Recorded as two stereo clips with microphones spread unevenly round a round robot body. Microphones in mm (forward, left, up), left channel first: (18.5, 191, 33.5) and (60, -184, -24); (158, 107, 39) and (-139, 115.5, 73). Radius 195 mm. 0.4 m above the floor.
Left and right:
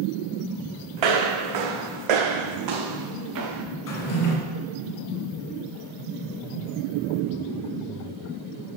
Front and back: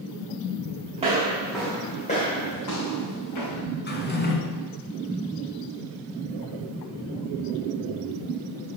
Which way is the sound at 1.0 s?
110° right.